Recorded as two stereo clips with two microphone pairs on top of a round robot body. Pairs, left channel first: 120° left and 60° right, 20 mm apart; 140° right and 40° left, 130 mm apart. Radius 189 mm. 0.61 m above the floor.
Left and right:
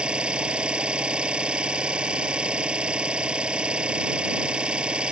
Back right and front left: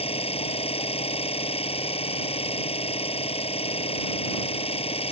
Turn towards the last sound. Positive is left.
turn(degrees=-95)